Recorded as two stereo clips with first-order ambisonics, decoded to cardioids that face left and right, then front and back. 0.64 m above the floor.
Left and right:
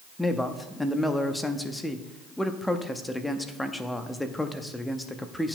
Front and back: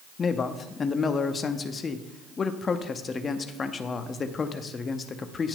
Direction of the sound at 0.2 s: 15° left.